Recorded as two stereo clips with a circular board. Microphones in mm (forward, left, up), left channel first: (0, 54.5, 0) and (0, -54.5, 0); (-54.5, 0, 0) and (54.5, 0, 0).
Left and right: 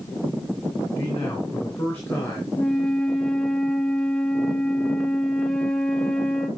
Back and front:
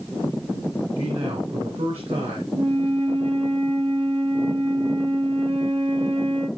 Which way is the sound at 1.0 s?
25° left.